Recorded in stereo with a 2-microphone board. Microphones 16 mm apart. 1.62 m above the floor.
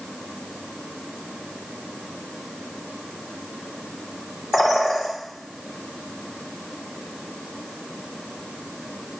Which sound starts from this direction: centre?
A bird, at 4.5 s.